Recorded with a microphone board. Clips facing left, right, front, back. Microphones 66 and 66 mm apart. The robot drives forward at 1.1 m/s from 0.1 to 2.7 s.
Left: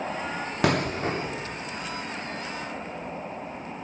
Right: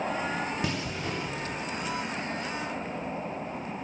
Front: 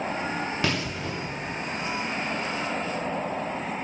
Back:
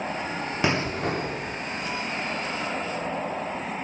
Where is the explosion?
110° left, 0.6 m; by 1.6 s 155° left, 1.4 m.